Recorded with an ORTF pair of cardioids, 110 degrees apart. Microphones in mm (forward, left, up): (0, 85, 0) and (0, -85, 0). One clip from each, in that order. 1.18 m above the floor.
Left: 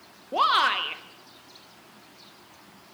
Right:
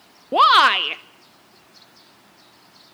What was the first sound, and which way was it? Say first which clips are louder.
A shout: right 8 dB; 45° right.